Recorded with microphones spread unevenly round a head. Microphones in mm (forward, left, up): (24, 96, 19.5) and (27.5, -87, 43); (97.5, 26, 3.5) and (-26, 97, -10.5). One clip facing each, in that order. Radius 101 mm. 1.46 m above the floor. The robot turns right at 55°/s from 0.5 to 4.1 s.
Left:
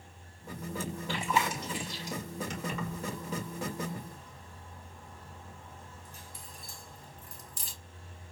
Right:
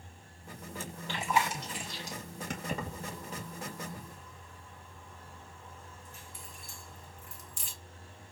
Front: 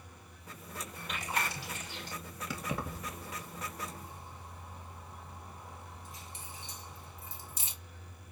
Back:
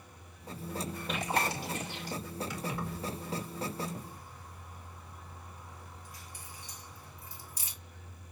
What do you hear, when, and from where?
1.1 s chewing: straight behind, 3 m; by 2.2 s 120° right, 3 m
2.5 s keys jangling: 50° right, 2 m; by 7.7 s 35° left, 2 m